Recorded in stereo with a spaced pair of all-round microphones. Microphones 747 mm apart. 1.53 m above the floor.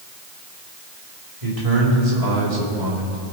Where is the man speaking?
45° right (ahead or behind), 3 m; by 3.2 s 80° right, 2.5 m.